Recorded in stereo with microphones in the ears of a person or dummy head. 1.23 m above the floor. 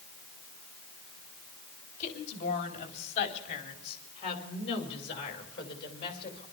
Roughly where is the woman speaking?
Left.